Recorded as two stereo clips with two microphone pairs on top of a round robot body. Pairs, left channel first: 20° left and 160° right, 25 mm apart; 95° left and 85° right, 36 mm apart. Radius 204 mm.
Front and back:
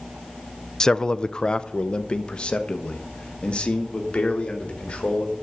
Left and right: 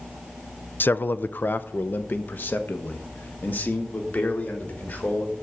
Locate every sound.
0.8 s a man speaking: 80° left, 0.6 m; by 5.3 s 65° left, 3 m